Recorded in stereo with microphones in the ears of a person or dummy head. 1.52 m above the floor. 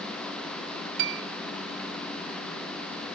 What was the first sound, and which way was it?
A piano, 65° right (ahead or behind).